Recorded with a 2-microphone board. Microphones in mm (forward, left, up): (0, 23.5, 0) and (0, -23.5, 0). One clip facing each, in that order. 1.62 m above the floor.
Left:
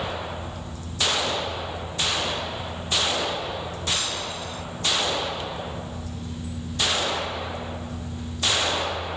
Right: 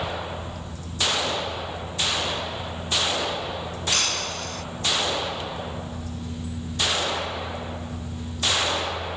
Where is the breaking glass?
60° right (ahead or behind).